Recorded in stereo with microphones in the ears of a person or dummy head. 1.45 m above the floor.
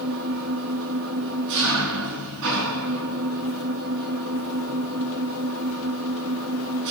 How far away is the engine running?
About 4 m.